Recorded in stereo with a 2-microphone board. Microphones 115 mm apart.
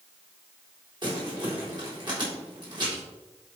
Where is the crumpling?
40° right (ahead or behind), 3.5 m.